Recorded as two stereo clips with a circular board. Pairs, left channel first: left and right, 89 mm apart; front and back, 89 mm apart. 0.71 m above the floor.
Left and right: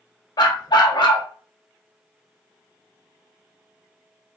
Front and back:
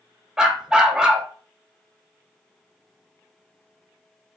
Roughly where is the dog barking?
Left.